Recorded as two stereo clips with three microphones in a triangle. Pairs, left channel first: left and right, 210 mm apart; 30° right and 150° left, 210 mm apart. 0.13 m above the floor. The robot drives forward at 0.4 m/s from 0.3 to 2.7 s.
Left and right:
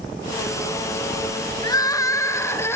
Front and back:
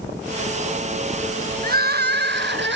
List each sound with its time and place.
1.6 s crying: 150° left, 0.7 m; by 2.8 s 165° left, 1.0 m